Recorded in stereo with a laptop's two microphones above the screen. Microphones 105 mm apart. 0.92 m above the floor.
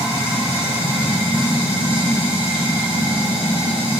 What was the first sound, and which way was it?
Running water, 60° right (ahead or behind).